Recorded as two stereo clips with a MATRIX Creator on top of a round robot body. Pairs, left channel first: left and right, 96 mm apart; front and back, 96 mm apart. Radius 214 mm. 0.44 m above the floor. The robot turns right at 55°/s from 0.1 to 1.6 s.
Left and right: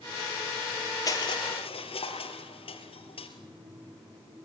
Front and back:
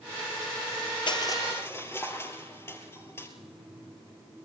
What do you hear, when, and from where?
1.1 s crushing: 35° left, 2.5 m; by 3.3 s 65° left, 2.5 m